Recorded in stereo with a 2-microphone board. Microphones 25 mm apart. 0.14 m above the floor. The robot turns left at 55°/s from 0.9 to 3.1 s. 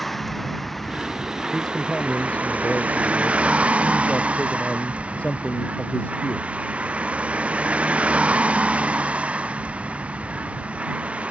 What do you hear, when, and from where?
0.0 s a vehicle: 5° left; by 11.3 s 115° right
1.5 s a man speaking: 165° left; by 6.7 s 75° left